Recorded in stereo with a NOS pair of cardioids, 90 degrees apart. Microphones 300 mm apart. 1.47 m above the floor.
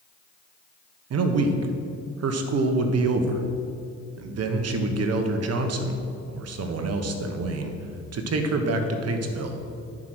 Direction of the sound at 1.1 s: 60° right.